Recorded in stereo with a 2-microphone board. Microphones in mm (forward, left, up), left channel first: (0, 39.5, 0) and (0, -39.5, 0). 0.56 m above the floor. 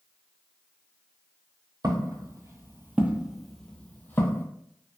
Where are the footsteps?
55° right (ahead or behind), 0.9 m; by 4.5 s 30° left (ahead or behind), 0.9 m.